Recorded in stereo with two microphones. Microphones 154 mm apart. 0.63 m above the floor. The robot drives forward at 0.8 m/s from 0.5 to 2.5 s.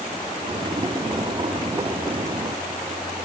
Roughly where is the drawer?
I don't hear a drawer.